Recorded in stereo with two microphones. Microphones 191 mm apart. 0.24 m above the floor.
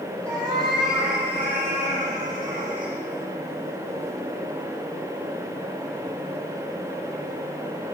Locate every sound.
0.2 s a cat meowing: 5° left (ahead or behind), 4 m; by 2.9 s 25° right (ahead or behind), 5.5 m